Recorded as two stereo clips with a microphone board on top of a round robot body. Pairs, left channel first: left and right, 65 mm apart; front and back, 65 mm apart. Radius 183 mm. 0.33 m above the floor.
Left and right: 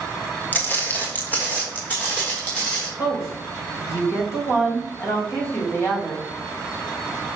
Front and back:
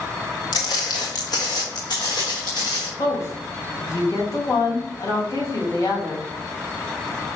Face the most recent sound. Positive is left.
turn(degrees=45)